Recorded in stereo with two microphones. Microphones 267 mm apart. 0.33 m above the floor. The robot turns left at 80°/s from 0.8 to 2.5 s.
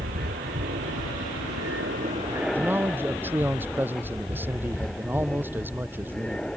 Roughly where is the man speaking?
Centre.